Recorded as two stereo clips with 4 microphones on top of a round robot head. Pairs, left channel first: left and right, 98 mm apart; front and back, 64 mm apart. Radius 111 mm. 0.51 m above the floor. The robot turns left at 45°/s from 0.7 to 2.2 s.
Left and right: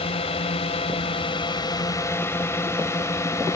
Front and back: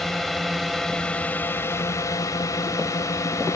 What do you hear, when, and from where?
0.0 s a drone: 85° left; by 3.6 s 35° left